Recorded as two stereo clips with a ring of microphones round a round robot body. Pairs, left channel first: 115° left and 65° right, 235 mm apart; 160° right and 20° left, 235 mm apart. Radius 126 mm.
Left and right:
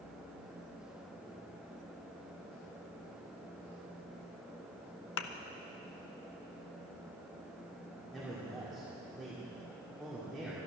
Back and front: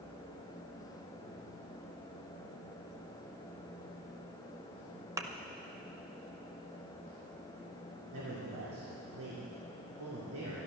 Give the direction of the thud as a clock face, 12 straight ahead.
9 o'clock.